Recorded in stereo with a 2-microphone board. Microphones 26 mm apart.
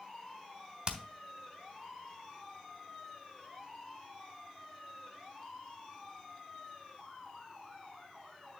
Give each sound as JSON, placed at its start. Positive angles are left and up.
{"t": 0.9, "sound": "hammering", "side_deg": -40, "distance_m": 1.4}